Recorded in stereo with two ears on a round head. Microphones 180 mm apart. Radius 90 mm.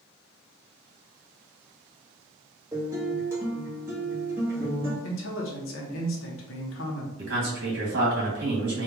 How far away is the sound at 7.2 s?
About 1.9 m.